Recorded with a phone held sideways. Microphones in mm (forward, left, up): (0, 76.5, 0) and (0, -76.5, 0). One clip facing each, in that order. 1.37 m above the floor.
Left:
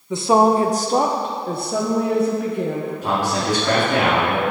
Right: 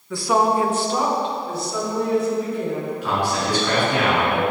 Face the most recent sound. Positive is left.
turn(degrees=45)  # may be behind; listen again after turning